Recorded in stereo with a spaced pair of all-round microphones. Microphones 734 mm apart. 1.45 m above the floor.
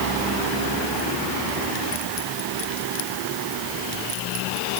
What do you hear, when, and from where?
Only background noise.